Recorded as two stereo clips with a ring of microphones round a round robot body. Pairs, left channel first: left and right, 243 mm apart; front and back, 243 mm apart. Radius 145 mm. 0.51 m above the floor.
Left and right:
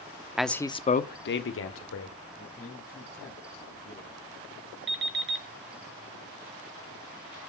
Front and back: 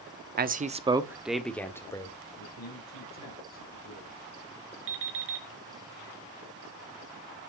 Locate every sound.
0.4 s a man speaking: 175° right, 1.2 m; by 2.1 s 75° left, 2 m
2.4 s a man speaking: 10° left, 4 m
4.9 s an alarm clock: 135° right, 4.5 m